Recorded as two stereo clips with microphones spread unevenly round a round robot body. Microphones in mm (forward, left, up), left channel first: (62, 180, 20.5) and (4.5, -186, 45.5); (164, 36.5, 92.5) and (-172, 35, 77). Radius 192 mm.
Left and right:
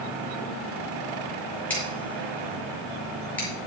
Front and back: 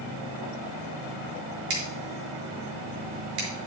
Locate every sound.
1.7 s scissors: 165° left, 4.5 m